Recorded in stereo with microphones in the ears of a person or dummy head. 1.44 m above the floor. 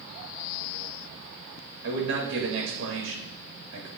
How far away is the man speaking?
About 2 m.